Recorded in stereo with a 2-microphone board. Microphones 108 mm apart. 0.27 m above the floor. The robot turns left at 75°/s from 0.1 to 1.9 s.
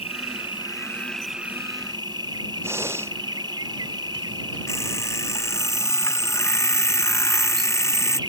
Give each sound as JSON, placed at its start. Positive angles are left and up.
{"t": 0.0, "sound": "an insect", "azimuth_deg": 85}
{"t": 2.6, "sound": "breathing", "side_deg": -25}
{"t": 4.7, "sound": "an alarm clock", "side_deg": 25}